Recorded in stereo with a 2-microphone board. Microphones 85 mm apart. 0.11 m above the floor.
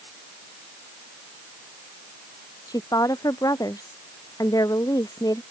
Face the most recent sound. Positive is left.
turn(degrees=45)  # may be behind; listen again after turning